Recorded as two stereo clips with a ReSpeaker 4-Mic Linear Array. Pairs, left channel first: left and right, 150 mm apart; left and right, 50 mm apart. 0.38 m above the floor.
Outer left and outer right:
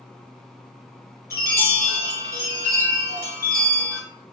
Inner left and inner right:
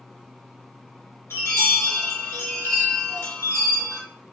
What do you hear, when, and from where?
1.3 s a chime: 80° left, 1.1 m